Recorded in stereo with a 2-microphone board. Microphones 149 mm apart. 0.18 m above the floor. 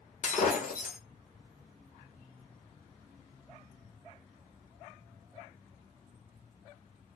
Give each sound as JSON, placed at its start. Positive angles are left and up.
{"t": 0.2, "sound": "breaking glass", "side_deg": 60, "distance_m": 1.3}